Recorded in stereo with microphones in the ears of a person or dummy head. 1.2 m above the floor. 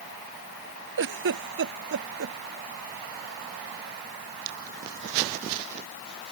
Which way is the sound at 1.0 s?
60° right (ahead or behind).